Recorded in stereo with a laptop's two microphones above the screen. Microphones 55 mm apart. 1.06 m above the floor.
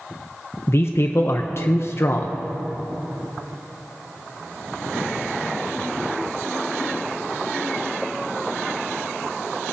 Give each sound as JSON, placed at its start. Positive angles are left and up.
{"t": 0.7, "sound": "a man speaking", "side_deg": 50, "distance_m": 0.5}